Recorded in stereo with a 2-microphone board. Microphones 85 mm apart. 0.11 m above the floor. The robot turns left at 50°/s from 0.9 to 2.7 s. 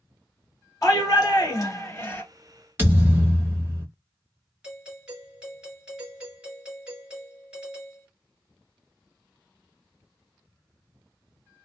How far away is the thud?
About 1.2 m.